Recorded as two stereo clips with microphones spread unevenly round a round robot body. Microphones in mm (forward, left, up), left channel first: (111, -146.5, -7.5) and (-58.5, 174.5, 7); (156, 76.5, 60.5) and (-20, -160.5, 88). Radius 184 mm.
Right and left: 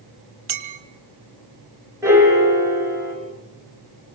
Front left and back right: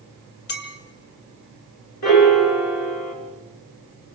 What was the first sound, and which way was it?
A clink, 105° left.